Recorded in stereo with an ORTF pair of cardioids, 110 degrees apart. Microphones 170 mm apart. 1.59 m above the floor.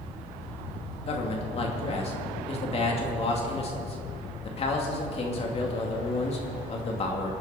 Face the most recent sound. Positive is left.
turn(degrees=35)